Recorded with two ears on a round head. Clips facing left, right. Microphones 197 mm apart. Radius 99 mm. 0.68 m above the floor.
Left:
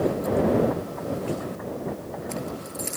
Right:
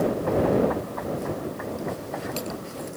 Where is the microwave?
I don't hear a microwave.